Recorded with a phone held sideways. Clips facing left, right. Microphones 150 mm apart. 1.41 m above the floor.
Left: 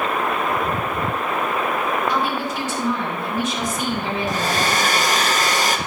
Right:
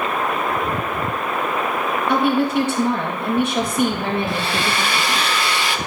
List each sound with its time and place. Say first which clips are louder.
2.1 s a woman speaking: right 6 dB; 60° right (ahead or behind), 2.5 m
4.3 s a hair dryer: left 1 dB; 40° left (ahead or behind), 0.7 m